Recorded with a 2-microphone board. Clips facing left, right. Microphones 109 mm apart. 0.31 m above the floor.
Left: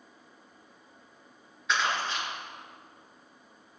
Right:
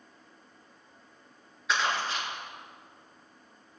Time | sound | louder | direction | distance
1.7 | crumpling | even | 5° right (ahead or behind) | 4 m